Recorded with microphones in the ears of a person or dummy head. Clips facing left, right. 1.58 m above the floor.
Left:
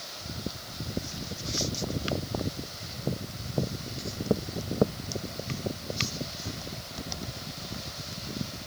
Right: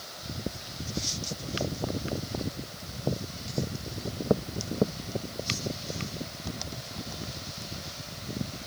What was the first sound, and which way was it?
Only background noise.